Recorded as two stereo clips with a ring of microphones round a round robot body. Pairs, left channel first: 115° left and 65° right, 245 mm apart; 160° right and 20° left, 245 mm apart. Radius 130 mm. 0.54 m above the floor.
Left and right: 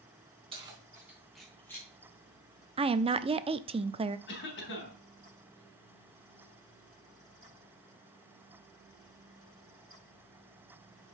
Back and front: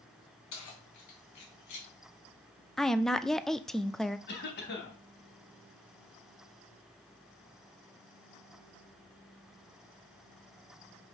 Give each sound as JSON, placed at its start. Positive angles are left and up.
{"t": 0.5, "sound": "keys jangling", "azimuth_deg": -140, "distance_m": 3.5}
{"t": 2.8, "sound": "a woman speaking", "azimuth_deg": -70, "distance_m": 0.6}
{"t": 4.3, "sound": "a cough", "azimuth_deg": 155, "distance_m": 3.5}